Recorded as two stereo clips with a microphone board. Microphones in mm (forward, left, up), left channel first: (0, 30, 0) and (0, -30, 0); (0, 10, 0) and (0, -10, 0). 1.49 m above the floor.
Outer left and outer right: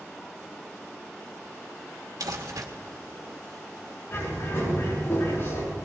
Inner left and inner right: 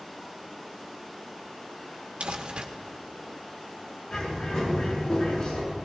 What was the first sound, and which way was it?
Crumpling, 80° right.